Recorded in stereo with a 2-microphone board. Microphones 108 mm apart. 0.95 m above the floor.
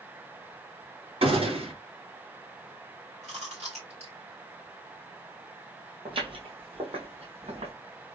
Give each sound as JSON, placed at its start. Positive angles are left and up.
{"t": 1.2, "sound": "a gunshot", "side_deg": -70, "distance_m": 2.0}
{"t": 3.2, "sound": "chewing", "side_deg": -85, "distance_m": 2.0}
{"t": 6.0, "sound": "footsteps", "side_deg": -55, "distance_m": 1.5}